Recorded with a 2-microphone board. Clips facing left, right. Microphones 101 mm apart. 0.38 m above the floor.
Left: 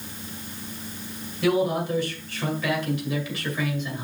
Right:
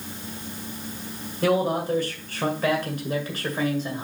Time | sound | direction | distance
1.4 | a man speaking | 40° right (ahead or behind) | 2 m